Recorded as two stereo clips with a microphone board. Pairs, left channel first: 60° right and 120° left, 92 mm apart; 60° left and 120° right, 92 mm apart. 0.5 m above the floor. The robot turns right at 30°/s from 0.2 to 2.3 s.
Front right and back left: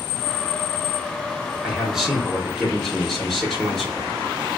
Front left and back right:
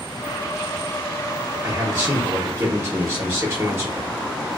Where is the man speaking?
175° right, 0.9 m; by 4.2 s 155° right, 0.9 m.